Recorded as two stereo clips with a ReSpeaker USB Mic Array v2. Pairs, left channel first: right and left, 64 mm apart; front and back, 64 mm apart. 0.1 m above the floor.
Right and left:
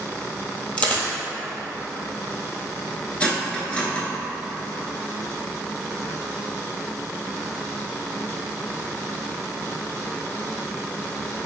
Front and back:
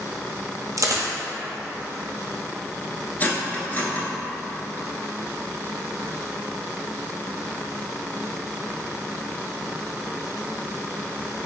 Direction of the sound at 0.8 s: 155° right.